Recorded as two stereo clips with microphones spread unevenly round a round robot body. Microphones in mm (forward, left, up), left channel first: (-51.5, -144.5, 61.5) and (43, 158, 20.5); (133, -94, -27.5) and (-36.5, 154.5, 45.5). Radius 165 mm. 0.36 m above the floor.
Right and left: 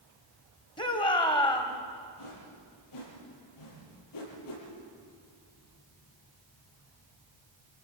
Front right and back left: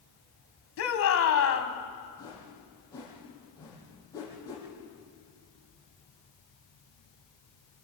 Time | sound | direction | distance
0.8 | a shout | 30° right | 2.5 m
2.2 | a whoosh | 135° right | 7.5 m